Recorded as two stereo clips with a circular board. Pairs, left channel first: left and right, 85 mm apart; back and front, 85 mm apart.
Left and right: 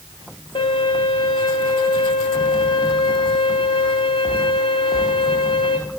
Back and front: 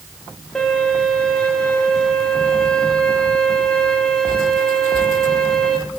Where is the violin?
95° left, 4 m.